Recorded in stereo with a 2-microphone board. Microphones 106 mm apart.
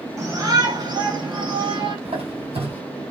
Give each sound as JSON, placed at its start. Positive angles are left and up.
{"t": 0.2, "sound": "a shout", "side_deg": -30, "distance_m": 2.0}
{"t": 2.0, "sound": "a squeak", "side_deg": -75, "distance_m": 2.0}